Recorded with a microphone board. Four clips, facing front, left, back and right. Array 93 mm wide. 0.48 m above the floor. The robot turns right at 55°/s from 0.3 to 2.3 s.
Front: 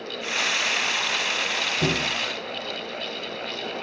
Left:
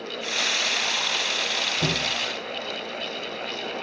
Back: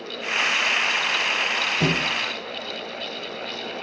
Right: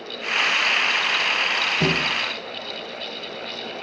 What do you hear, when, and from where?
1.8 s a thud: 130° right, 5 m; by 2.1 s 115° right, 5 m